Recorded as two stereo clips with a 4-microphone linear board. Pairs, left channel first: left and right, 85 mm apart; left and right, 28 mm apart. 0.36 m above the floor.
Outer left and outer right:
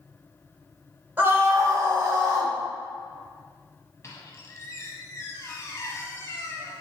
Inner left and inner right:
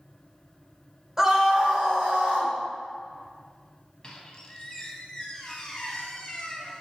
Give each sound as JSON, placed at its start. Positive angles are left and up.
{"t": 1.2, "sound": "a scream", "side_deg": -20, "distance_m": 1.0}
{"t": 4.0, "sound": "a squeak", "side_deg": 35, "distance_m": 0.8}